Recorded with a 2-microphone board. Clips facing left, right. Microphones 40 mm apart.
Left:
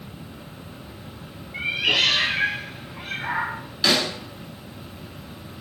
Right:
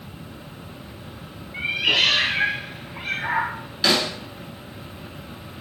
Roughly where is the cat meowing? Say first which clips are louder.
Right 1 dB; centre.